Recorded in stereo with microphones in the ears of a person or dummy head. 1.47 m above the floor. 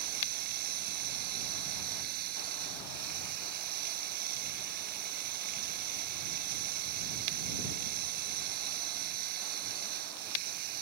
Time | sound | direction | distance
0.0 | running water | 50° right (ahead or behind) | ?